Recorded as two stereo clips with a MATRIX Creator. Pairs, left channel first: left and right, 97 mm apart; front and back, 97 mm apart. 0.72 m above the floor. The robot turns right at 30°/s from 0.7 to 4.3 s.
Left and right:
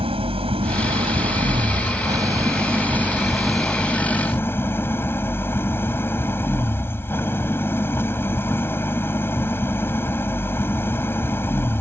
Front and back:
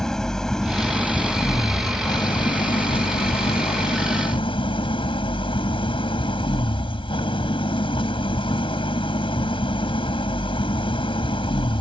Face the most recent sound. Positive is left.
turn(degrees=25)